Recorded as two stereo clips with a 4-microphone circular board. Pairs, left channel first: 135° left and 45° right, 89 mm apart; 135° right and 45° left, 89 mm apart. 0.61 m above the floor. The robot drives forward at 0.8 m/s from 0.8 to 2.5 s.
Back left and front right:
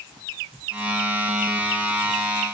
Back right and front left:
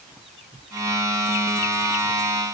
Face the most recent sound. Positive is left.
No sound to turn to.